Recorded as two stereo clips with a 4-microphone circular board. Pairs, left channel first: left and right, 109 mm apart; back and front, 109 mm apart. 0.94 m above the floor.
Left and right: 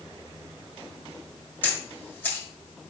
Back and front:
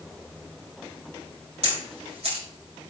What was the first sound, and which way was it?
A camera shutter, 20° left.